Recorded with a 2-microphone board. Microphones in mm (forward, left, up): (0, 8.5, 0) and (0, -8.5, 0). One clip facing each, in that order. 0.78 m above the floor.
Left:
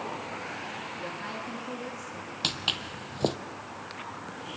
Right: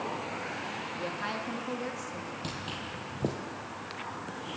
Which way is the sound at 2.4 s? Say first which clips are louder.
Left 13 dB; 50° left (ahead or behind).